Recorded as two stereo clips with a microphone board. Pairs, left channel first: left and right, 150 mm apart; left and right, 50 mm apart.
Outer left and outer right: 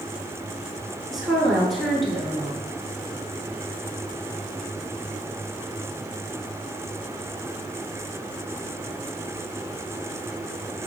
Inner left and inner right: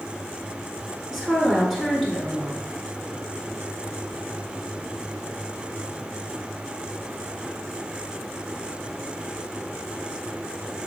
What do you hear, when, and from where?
1.1 s a woman speaking: centre (ahead or behind), 1.3 m